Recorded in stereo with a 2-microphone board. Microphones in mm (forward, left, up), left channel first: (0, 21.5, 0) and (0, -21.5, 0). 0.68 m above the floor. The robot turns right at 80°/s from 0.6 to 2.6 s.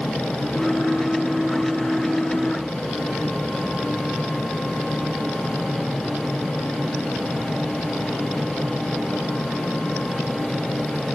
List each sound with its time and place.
Only background noise.